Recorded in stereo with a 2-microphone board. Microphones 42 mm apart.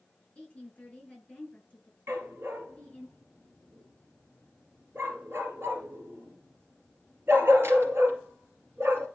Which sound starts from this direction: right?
A dog barking, at 2.1 s.